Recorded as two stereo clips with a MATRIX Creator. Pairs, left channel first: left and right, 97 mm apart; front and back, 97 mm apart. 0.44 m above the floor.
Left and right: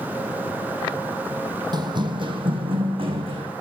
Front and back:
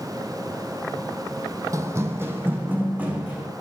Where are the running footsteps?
125° right, 1.0 m; by 3.5 s 105° right, 2.0 m.